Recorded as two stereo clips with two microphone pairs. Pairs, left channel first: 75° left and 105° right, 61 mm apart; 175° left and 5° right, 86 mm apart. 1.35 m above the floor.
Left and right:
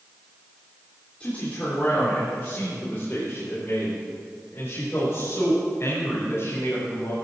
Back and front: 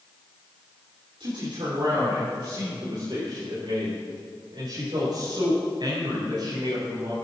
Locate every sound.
1.2 s a man speaking: 10° left, 3.5 m; by 7.2 s 25° left, 6.5 m